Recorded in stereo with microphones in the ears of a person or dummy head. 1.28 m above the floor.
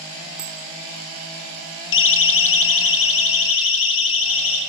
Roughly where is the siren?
Left.